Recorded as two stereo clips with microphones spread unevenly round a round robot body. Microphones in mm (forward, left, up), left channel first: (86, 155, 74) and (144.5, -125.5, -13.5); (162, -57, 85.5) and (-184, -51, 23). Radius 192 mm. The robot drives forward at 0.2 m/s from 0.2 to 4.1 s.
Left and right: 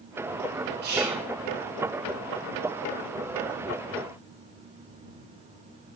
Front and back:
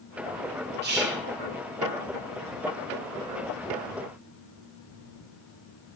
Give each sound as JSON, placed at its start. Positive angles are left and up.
{"t": 0.8, "sound": "whispering", "azimuth_deg": -125, "distance_m": 1.5}